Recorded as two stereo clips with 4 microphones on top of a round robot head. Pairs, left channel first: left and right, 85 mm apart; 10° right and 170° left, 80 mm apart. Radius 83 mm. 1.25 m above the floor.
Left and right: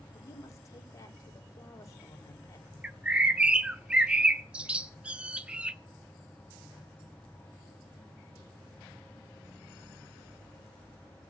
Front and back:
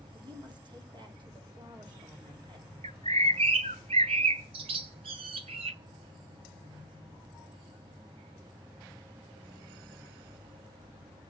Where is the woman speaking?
145° left, 4.5 m.